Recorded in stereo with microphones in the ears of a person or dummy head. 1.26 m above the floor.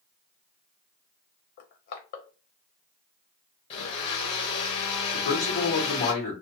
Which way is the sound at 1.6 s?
50° left (ahead or behind).